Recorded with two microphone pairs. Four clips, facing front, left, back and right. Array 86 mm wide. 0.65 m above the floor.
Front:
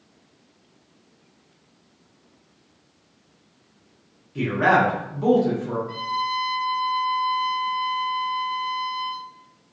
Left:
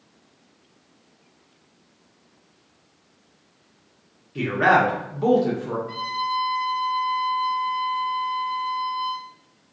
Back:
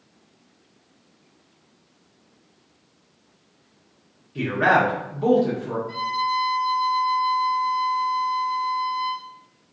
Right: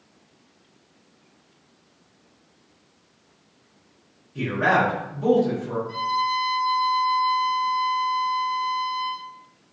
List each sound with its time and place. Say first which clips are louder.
4.3 s a man speaking: left 3 dB, even; 90° left, 0.9 m
5.9 s a violin: right 6 dB, back 2 dB; 70° left, 0.9 m